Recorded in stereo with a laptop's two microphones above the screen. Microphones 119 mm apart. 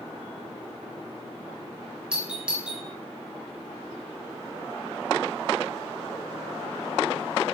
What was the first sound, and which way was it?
A doorbell, 10° right (ahead or behind).